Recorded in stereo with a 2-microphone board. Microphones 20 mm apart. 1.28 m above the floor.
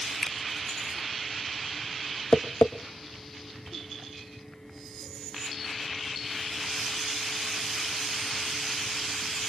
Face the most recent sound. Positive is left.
turn(degrees=75)  # may be behind; listen again after turning